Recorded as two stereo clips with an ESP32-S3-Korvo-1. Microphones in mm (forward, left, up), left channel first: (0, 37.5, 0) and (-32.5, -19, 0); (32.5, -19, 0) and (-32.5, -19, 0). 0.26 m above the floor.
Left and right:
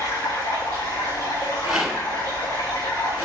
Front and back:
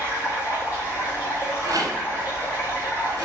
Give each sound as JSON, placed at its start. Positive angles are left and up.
{"t": 0.0, "sound": "running water", "azimuth_deg": 55, "distance_m": 3.0}
{"t": 1.6, "sound": "a rattle", "azimuth_deg": 160, "distance_m": 1.3}